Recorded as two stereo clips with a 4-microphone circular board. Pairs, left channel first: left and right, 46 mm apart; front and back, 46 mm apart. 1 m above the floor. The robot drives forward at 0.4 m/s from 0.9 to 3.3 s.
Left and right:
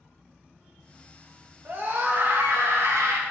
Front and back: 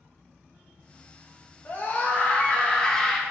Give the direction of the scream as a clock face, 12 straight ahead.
1 o'clock.